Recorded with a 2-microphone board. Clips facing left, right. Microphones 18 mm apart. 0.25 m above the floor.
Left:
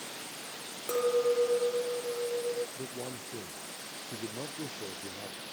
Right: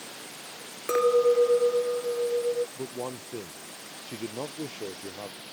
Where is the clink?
40° right (ahead or behind).